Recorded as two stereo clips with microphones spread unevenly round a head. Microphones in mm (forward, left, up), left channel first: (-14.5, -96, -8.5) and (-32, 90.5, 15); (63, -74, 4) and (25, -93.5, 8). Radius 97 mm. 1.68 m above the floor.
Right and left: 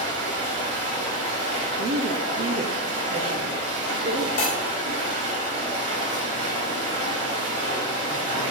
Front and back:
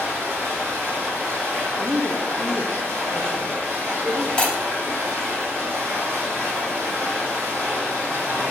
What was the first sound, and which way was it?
Running water, 120° left.